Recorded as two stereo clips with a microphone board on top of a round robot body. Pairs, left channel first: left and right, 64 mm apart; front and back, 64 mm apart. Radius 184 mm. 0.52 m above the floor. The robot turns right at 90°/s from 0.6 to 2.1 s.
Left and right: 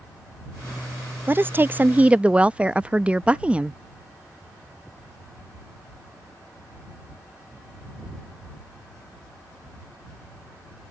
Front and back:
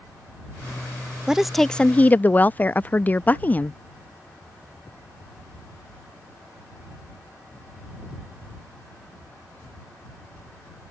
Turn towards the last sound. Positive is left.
turn(degrees=-35)